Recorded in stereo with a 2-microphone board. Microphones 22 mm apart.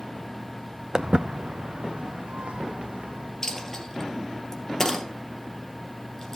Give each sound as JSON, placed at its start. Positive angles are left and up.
{"t": 0.9, "sound": "footsteps", "side_deg": -40, "distance_m": 0.7}
{"t": 3.4, "sound": "a dropped coin", "side_deg": 20, "distance_m": 2.5}